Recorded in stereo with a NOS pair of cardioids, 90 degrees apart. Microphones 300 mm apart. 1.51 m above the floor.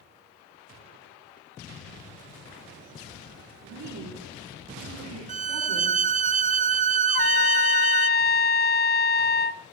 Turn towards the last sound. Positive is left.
turn(degrees=35)